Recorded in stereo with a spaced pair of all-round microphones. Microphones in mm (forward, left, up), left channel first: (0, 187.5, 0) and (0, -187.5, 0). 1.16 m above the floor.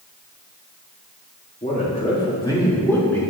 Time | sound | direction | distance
1.6 | a man speaking | 25° left (ahead or behind) | 2.5 m